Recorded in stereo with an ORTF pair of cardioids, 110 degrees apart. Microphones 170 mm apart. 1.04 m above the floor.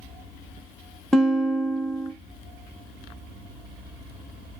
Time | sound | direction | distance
1.1 | a guitar | 5° left | 1.0 m